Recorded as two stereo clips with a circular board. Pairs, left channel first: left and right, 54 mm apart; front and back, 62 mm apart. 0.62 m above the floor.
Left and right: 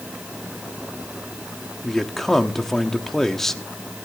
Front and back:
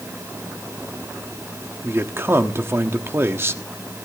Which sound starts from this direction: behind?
A man speaking, at 1.8 s.